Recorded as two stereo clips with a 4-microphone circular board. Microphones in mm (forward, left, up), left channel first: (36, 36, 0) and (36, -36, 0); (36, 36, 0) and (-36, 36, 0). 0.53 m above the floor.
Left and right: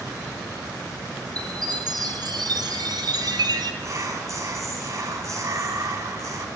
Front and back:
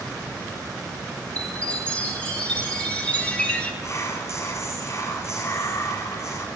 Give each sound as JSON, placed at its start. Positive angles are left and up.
{"t": 1.4, "sound": "a chime", "azimuth_deg": -75, "distance_m": 3.0}
{"t": 3.8, "sound": "whispering", "azimuth_deg": -50, "distance_m": 4.0}